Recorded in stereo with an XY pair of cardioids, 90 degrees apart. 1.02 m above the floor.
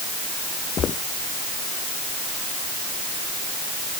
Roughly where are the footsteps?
Ahead left.